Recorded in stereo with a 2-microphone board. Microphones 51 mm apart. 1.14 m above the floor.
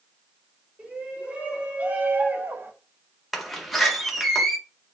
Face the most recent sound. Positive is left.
turn(degrees=0)  # may be behind; listen again after turning